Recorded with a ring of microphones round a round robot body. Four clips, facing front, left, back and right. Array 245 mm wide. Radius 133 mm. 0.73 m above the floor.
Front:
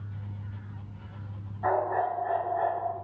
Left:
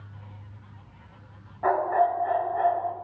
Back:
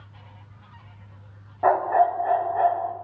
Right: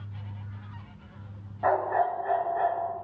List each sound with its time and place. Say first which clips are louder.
1.6 s a dog barking: left 2 dB, back 7 dB; 170° right, 2 m